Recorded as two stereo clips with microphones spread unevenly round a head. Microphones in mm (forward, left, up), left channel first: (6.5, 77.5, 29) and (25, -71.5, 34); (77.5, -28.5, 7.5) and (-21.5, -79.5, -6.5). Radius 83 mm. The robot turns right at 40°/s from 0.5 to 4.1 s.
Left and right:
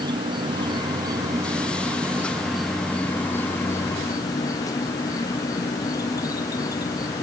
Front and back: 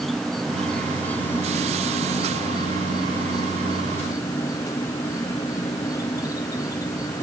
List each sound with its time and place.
0.0 s an insect: 75° right; by 7.2 s 70° left